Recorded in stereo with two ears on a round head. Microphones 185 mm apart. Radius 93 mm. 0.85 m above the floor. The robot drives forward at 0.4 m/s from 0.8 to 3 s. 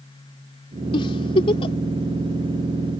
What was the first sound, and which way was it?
A giggle, 25° left (ahead or behind).